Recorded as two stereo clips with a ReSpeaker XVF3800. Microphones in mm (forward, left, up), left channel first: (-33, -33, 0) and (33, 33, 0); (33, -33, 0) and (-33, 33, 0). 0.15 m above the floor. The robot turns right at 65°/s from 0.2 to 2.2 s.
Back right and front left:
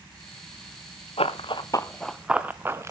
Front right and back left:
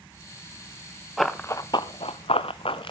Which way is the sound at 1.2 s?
135° right.